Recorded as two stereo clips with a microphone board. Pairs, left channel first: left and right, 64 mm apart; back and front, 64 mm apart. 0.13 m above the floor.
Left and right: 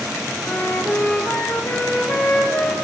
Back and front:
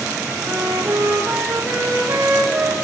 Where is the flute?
40° left, 2.5 m.